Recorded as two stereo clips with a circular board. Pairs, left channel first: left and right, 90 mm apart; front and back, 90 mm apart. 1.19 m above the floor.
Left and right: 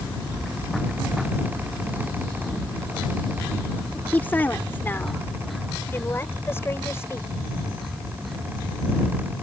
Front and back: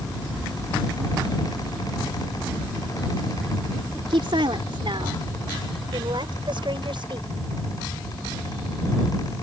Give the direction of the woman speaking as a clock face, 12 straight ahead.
7 o'clock.